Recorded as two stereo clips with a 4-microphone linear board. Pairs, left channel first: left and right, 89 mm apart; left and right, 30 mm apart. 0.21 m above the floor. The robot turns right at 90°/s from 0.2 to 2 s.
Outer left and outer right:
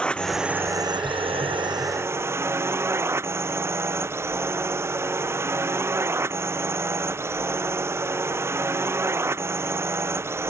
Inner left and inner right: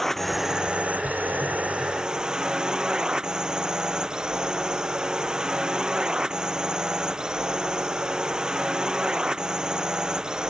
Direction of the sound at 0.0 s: 170° left.